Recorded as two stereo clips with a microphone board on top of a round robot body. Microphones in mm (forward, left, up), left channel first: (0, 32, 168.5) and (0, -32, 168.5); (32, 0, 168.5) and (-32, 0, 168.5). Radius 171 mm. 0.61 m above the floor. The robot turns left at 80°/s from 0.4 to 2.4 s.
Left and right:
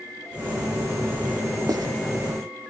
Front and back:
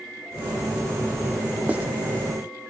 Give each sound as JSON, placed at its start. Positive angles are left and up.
{"t": 1.7, "sound": "writing", "azimuth_deg": -110, "distance_m": 1.4}